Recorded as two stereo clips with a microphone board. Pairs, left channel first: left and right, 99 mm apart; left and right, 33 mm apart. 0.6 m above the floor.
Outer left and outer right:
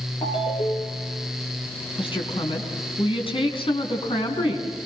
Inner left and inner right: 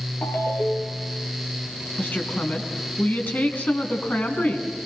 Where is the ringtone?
70° left (ahead or behind), 5 m.